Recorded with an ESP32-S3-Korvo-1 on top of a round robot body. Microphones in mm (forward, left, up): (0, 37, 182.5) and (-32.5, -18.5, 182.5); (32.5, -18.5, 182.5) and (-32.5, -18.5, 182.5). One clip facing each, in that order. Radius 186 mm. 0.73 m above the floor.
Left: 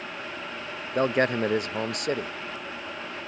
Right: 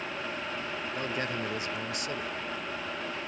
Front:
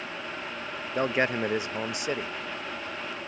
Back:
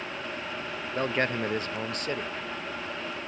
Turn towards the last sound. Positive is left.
turn(degrees=80)